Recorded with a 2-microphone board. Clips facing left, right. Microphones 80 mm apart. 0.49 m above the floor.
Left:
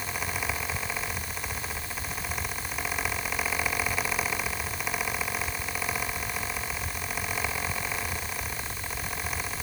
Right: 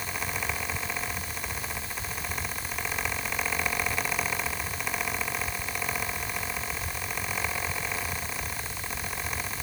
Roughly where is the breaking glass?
I don't hear breaking glass.